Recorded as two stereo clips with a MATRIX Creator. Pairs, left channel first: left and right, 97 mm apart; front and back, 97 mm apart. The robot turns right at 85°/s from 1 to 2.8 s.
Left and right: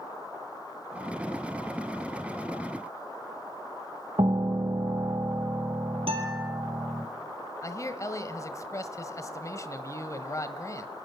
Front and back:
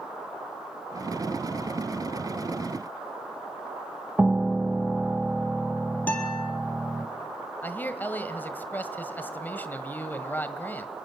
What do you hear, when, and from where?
4.2 s a piano: 105° right, 0.8 m
6.1 s a guitar: 75° right, 4 m
7.6 s a man speaking: 60° left, 1.5 m